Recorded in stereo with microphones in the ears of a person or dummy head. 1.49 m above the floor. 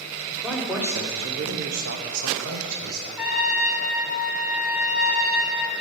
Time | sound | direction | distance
0.3 | a man speaking | 15° left (ahead or behind) | 1.0 m
3.2 | a trumpet | centre (ahead or behind) | 1.0 m